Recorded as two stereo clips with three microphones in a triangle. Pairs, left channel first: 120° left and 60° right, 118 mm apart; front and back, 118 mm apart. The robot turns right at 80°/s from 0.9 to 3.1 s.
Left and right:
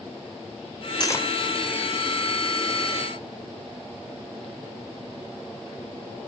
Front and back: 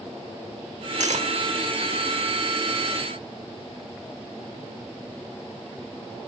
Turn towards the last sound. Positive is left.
turn(degrees=-15)